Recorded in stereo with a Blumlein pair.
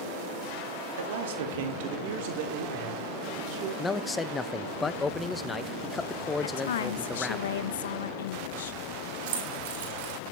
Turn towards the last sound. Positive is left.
turn(degrees=-55)